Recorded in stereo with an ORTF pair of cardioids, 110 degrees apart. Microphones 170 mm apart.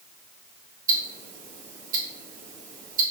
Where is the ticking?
55° right, 1.4 m.